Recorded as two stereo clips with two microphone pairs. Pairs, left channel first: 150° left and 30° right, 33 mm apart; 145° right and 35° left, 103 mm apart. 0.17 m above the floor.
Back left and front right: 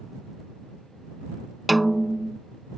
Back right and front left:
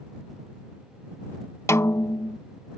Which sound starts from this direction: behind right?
A snare drum, at 1.7 s.